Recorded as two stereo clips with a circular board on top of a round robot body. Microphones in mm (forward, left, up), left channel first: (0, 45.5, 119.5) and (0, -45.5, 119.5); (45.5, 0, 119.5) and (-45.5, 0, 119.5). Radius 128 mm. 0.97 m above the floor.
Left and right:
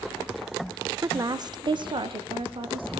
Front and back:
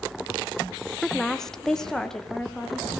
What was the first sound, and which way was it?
A woman speaking, 85° right.